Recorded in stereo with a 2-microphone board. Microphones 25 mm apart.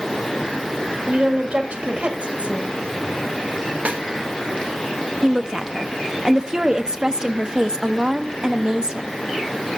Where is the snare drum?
75° right (ahead or behind), 2 m.